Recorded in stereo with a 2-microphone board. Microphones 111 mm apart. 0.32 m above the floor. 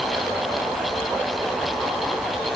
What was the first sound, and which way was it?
Only background noise.